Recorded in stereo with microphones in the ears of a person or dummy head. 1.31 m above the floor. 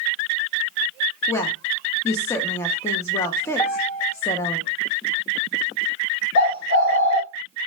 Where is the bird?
65° left (ahead or behind), 0.9 m.